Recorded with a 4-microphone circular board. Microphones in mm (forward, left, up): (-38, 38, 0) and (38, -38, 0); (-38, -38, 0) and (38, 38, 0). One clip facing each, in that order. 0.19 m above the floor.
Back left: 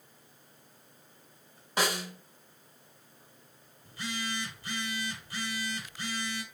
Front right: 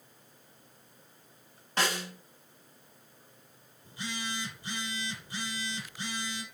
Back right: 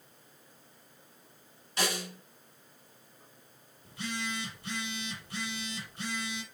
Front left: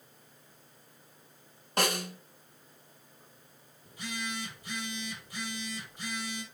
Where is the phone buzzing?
115° right, 4.5 m.